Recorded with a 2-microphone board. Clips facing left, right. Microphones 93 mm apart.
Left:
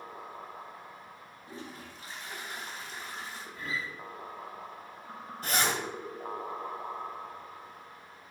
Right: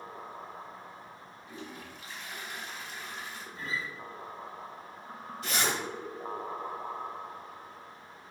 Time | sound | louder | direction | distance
1.5 | a toilet flushing | even | 35° left (ahead or behind) | 1.4 m
3.5 | a guitar | even | 30° right (ahead or behind) | 2.5 m
5.4 | a zipper | left 1 dB | 45° left (ahead or behind) | 1.9 m